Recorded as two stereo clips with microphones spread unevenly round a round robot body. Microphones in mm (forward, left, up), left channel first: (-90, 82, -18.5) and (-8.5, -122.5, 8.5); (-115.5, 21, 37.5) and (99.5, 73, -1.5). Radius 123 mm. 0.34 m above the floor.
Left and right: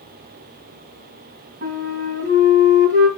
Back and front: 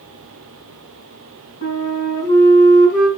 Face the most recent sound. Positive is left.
turn(degrees=-110)